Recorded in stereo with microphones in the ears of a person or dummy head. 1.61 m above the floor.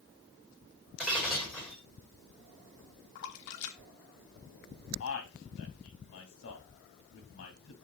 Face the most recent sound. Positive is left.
turn(degrees=70)  # may be behind; listen again after turning